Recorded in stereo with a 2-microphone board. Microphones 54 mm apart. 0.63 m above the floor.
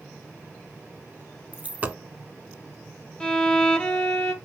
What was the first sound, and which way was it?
A dropped coin, 30° right (ahead or behind).